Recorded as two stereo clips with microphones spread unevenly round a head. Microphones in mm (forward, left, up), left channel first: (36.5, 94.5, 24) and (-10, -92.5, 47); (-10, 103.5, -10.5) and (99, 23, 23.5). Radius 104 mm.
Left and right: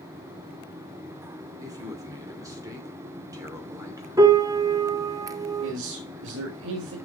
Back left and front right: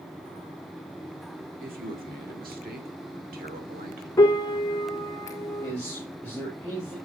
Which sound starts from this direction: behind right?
A man speaking, at 5.6 s.